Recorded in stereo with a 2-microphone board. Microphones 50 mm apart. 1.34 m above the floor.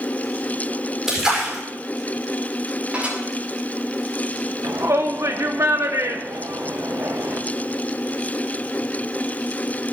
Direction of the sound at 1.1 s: 10° right (ahead or behind).